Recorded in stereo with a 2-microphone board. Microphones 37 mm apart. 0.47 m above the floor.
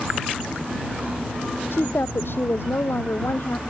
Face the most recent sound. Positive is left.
turn(degrees=80)